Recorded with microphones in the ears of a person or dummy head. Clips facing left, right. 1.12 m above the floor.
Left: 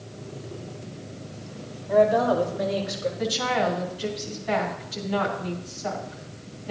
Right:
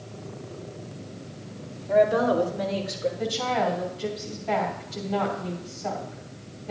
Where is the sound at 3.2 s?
5° left (ahead or behind), 2.5 m.